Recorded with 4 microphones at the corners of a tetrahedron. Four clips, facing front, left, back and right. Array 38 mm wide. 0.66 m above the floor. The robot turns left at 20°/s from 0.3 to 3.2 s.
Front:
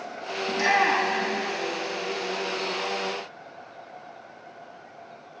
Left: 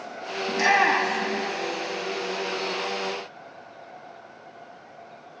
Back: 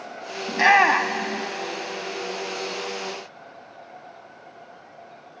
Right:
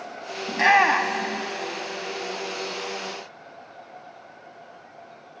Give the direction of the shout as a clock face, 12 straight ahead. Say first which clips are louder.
Right 2 dB, back 6 dB; 5 o'clock.